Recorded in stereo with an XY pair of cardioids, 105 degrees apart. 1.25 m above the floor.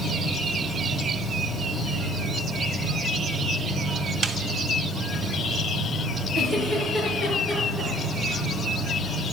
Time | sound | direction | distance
0.0 | an insect | 10° right | 4 m
4.2 | a snare drum | 40° right | 0.8 m
6.3 | a giggle | 45° right | 6 m